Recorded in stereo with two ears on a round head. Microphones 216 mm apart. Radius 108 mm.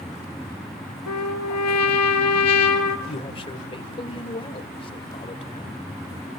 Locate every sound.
1.1 s a trumpet: 80° left, 3 m
3.1 s a man speaking: 25° left (ahead or behind), 2 m